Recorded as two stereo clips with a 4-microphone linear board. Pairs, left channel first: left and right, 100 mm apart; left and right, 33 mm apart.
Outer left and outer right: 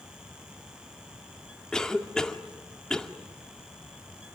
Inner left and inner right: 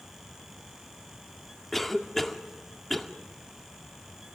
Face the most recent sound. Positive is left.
turn(degrees=5)  # may be behind; listen again after turning